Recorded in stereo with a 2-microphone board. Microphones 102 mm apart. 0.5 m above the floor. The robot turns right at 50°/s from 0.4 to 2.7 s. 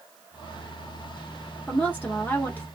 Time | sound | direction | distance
1.7 | a woman speaking | 15° left (ahead or behind) | 0.7 m